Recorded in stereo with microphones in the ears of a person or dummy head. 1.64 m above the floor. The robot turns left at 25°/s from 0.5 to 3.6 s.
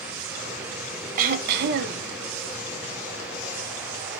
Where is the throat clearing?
50° right (ahead or behind), 0.5 m; by 2.1 s 65° right (ahead or behind), 0.5 m.